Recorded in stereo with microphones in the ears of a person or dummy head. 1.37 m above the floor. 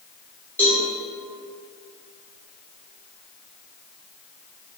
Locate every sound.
0.6 s a cowbell: 20° left (ahead or behind), 1.2 m